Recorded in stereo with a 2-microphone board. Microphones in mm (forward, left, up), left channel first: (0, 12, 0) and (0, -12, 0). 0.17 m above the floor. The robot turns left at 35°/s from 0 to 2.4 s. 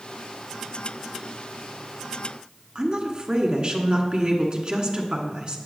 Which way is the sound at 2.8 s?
45° right (ahead or behind).